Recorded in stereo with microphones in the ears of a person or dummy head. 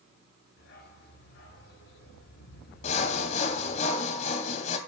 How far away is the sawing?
About 2.5 m.